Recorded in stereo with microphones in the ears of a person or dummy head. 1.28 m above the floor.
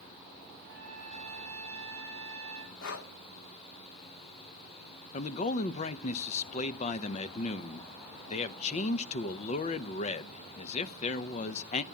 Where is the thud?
No thud in this recording.